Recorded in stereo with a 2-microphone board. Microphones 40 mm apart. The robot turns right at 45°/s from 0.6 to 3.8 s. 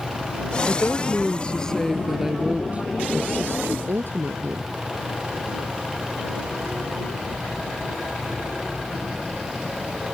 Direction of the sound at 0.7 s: 120° left.